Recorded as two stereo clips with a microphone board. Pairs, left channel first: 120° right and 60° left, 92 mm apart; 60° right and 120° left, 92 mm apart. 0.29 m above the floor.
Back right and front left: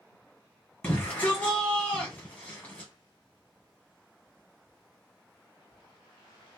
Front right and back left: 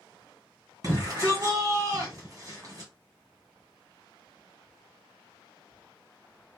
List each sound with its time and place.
0.8 s a shout: 165° left, 2.5 m